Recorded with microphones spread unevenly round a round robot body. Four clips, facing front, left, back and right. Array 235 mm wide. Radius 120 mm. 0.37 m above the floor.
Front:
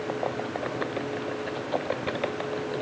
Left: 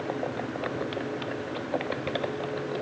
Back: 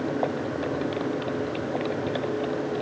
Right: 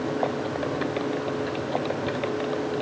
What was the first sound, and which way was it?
Only background noise.